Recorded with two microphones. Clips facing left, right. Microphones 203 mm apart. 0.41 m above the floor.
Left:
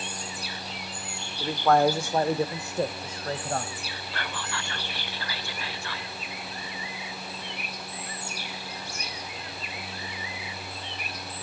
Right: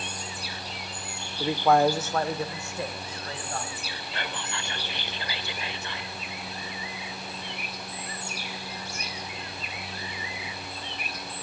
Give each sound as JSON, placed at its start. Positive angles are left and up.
{"t": 1.4, "sound": "a man speaking", "side_deg": -20, "distance_m": 0.9}
{"t": 4.1, "sound": "whispering", "side_deg": -20, "distance_m": 1.5}